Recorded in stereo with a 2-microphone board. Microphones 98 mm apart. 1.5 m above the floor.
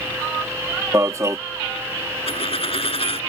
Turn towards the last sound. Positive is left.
turn(degrees=75)  # may be behind; listen again after turning